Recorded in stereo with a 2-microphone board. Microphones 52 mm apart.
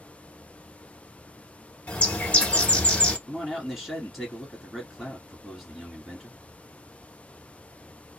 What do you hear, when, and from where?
1.9 s a bird: 25° left (ahead or behind), 0.8 m
3.3 s a man speaking: 5° right (ahead or behind), 1.7 m